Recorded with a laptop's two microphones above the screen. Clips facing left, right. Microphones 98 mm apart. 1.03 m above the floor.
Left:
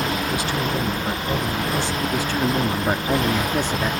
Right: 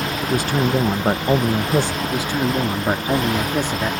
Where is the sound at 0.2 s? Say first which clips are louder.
Right 4 dB; 45° right (ahead or behind).